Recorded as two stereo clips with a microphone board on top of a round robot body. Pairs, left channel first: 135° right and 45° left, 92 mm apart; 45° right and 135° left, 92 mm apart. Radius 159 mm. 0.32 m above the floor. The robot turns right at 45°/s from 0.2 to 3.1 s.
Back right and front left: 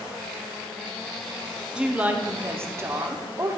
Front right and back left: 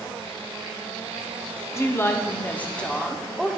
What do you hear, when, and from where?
1.7 s a woman speaking: 25° right, 1.3 m; by 3.6 s 35° left, 1.3 m